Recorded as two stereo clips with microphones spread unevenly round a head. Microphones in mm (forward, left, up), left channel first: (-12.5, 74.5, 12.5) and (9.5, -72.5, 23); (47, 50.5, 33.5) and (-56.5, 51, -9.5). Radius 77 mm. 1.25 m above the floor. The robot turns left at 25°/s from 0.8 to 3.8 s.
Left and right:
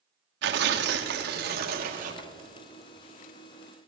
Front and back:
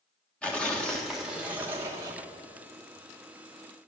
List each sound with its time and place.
0.4 s tearing paper: 90° right, 1.3 m; by 2.3 s 125° right, 1.3 m